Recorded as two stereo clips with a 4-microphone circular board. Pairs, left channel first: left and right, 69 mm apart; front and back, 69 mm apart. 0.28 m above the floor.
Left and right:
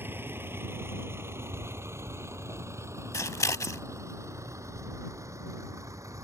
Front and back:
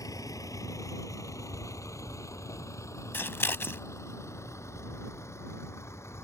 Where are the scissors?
55° left.